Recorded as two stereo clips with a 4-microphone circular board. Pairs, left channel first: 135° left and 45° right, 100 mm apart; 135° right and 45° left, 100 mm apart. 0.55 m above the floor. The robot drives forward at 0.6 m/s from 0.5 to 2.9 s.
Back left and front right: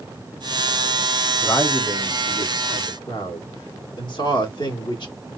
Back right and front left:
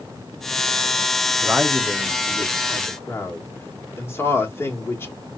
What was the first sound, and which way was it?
A man speaking, 105° left.